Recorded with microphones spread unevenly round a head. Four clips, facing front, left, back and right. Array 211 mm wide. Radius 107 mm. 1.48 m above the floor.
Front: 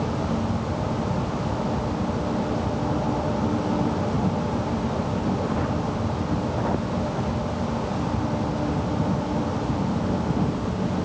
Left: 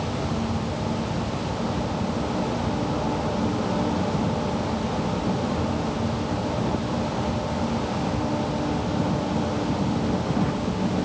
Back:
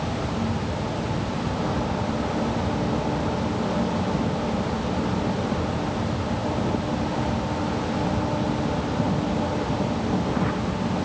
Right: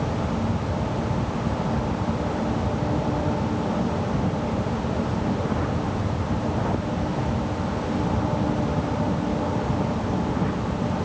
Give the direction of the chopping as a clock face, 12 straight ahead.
No chopping in this recording.